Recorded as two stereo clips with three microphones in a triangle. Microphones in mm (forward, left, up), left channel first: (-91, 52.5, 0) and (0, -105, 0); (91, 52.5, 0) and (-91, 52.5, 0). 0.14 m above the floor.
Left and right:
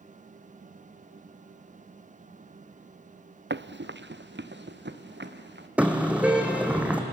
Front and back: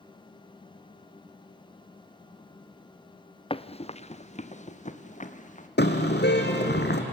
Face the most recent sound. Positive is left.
turn(degrees=20)